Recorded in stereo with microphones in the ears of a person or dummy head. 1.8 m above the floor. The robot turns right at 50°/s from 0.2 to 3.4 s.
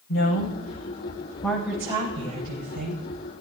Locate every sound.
0.1 s a woman speaking: 65° left (ahead or behind), 8 m; by 3.0 s 75° right (ahead or behind), 8 m